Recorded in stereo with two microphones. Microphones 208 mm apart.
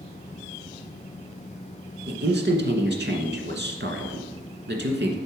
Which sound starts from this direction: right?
A man speaking, at 2.1 s.